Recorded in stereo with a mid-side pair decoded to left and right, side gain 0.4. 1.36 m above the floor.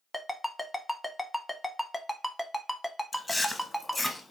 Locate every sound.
0.1 s a ringtone: 10° left, 0.8 m
3.1 s chewing: 20° left, 0.9 m